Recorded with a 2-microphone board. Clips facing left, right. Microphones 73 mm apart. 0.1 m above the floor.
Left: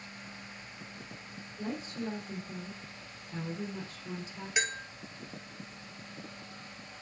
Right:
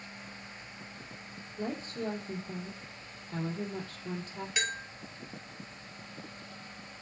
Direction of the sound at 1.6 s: 70° right (ahead or behind).